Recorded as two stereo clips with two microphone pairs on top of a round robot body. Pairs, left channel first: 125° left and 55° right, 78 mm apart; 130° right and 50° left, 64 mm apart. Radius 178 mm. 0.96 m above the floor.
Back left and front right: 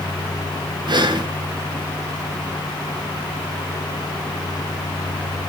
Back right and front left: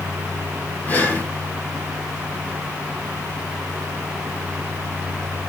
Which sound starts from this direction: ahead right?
Breathing, at 0.9 s.